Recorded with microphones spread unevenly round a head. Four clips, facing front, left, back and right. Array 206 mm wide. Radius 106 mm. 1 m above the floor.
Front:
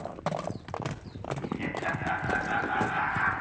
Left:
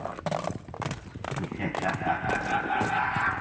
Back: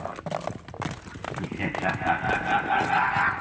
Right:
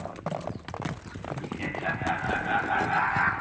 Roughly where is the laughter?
Behind left.